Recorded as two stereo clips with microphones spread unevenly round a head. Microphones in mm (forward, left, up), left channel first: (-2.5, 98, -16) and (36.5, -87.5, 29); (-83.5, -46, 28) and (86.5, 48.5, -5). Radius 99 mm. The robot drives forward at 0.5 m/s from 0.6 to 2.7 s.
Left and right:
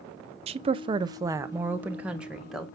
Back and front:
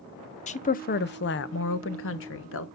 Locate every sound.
0.5 s a woman speaking: 130° right, 0.6 m; by 2.6 s 170° right, 1.3 m